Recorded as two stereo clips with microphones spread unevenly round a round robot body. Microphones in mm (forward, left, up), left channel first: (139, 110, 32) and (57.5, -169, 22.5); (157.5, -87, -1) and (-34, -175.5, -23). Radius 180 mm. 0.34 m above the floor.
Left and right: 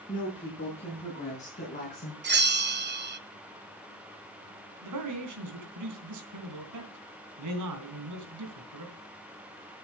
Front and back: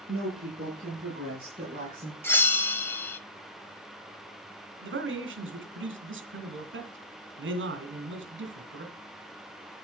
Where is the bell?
60° right, 1.2 m.